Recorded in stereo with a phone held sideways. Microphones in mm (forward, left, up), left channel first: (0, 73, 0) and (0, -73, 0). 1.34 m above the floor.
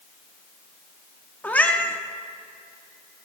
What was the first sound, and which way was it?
A cat meowing, 10° left (ahead or behind).